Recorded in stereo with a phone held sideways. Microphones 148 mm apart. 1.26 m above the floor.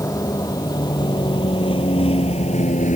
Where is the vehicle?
25° left (ahead or behind); by 3.0 s 60° left (ahead or behind).